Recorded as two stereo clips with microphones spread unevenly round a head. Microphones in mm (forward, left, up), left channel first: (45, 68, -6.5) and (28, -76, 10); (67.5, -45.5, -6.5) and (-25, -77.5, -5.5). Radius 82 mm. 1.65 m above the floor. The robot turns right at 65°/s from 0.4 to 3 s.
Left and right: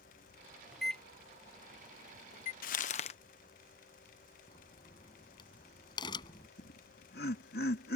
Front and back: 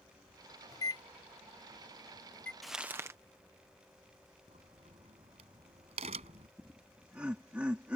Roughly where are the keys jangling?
No keys jangling in this recording.